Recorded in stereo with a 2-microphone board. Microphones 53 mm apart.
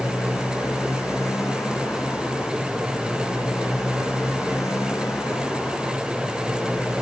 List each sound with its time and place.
0.0 s a motorcycle: 60° left (ahead or behind)